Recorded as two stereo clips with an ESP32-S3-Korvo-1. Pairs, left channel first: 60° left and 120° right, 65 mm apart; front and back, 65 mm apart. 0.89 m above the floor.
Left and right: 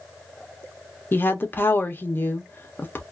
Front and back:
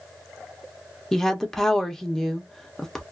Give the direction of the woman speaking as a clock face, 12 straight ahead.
9 o'clock.